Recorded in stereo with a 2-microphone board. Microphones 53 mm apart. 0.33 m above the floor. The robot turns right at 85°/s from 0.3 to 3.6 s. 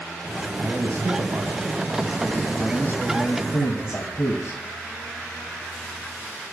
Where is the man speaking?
150° right, 2.5 m; by 4.6 s 105° left, 2.5 m.